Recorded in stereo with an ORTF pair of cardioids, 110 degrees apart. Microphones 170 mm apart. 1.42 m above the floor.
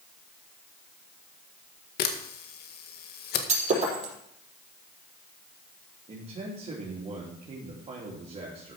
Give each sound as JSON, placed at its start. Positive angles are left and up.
{"t": 2.0, "sound": "a camera shutter", "azimuth_deg": 65, "distance_m": 1.7}
{"t": 3.5, "sound": "breaking glass", "azimuth_deg": -40, "distance_m": 5.0}
{"t": 6.1, "sound": "a man speaking", "azimuth_deg": -35, "distance_m": 3.0}